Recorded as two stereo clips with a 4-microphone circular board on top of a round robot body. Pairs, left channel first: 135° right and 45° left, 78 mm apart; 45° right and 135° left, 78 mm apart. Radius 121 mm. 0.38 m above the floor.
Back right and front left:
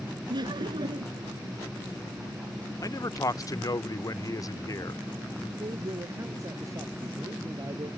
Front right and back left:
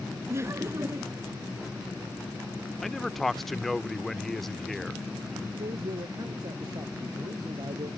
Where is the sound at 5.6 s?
95° left.